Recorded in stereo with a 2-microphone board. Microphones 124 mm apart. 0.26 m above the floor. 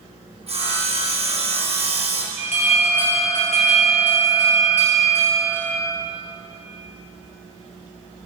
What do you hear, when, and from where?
0.5 s sawing: 55° right (ahead or behind), 2.5 m
2.4 s an alarm: 60° left (ahead or behind), 4.5 m